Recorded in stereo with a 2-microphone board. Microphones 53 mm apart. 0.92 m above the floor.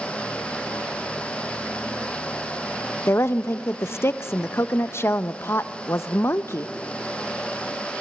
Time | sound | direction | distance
3.1 | a woman speaking | 55° left (ahead or behind) | 0.7 m